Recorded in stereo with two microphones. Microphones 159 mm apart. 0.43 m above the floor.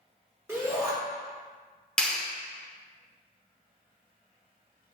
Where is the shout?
15° right (ahead or behind), 1.4 m.